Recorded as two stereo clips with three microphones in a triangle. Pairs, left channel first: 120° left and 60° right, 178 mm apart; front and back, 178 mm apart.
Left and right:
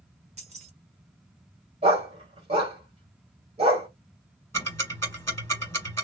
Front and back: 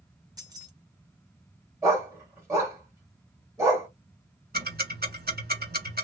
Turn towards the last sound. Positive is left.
turn(degrees=-165)